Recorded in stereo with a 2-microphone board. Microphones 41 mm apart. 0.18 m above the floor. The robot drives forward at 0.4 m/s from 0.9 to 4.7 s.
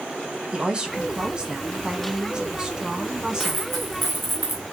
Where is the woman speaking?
20° right (ahead or behind), 1.0 m; by 3.6 s 15° right (ahead or behind), 1.5 m.